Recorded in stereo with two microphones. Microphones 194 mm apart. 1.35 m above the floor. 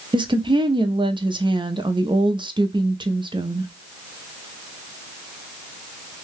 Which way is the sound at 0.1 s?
25° right (ahead or behind).